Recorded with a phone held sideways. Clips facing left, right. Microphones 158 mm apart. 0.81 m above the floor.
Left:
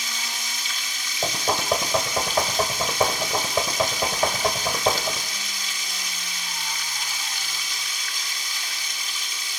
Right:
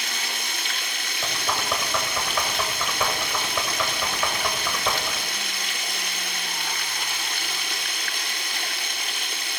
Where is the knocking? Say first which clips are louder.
Left 4 dB; 35° left (ahead or behind), 2.5 m.